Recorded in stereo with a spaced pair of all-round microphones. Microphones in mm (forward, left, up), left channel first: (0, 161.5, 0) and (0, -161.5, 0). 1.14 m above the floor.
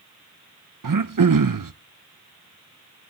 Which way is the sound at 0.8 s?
80° right.